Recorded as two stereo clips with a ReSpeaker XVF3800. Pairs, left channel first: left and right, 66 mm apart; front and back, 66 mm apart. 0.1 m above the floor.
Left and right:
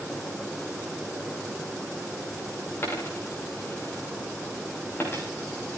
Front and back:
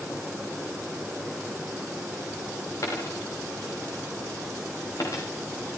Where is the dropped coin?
35° left, 6 m.